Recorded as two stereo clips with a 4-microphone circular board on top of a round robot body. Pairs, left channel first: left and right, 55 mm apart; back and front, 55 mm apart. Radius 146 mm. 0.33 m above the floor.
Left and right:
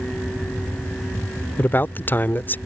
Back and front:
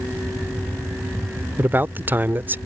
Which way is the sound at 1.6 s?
45° left.